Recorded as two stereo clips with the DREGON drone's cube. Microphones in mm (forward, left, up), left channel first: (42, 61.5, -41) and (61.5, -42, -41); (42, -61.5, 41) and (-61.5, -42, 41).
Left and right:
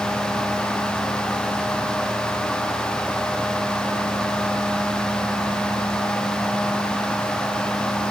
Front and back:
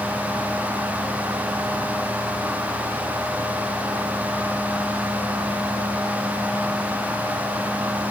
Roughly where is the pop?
I don't hear a pop.